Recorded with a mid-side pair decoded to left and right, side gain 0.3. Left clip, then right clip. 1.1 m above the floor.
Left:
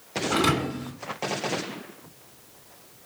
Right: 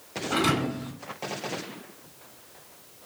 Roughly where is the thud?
Ahead left.